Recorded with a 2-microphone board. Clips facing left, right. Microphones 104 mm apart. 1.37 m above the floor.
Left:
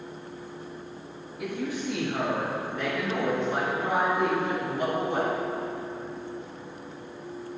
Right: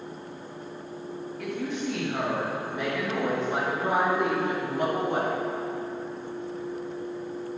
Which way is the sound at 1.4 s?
10° left (ahead or behind).